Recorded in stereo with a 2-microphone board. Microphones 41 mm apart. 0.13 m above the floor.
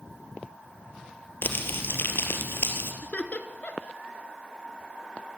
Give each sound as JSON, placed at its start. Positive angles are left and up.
{"t": 1.4, "sound": "crumpling", "side_deg": 60, "distance_m": 3.5}
{"t": 3.0, "sound": "laughter", "side_deg": 45, "distance_m": 1.9}